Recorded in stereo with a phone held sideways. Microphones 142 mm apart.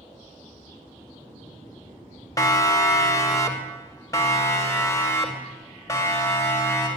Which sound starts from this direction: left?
A siren, at 2.4 s.